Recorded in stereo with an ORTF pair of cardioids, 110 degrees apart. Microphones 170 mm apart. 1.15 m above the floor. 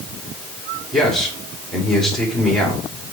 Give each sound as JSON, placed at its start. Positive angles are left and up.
{"t": 0.9, "sound": "a man speaking", "azimuth_deg": 0, "distance_m": 3.0}